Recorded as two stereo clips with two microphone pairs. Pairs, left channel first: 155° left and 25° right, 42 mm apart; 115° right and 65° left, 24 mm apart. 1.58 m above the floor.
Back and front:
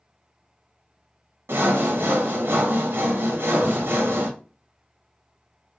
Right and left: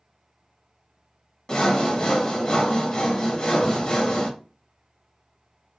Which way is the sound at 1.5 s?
55° right.